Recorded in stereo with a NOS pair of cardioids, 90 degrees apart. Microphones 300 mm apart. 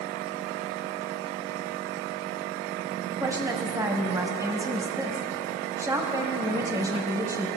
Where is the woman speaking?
10° right, 1.2 m.